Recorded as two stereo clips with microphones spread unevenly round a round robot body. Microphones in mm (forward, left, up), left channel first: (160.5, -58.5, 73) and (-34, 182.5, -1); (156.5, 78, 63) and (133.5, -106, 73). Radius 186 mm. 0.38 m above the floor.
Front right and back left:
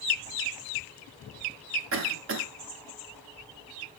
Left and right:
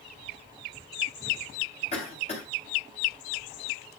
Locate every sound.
1.9 s a cough: 130° left, 1.7 m